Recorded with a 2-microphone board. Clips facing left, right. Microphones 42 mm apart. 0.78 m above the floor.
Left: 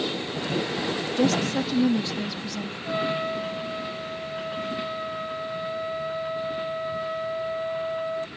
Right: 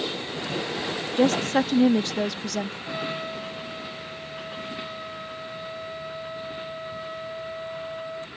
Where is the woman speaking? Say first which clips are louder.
Right 3 dB; 35° right (ahead or behind); by 2.8 s 65° right (ahead or behind).